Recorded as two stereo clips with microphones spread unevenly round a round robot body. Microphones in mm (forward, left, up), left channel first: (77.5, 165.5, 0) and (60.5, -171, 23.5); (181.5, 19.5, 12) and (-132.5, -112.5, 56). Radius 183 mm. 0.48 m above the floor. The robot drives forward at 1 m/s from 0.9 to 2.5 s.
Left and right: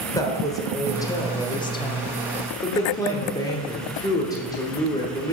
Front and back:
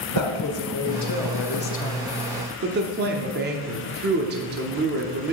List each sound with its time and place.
0.1 s a woman speaking: 10° left, 1.4 m; by 5.3 s 155° left, 0.9 m